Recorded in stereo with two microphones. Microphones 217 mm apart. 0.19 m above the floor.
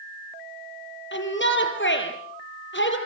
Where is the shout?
60° left (ahead or behind), 5 m.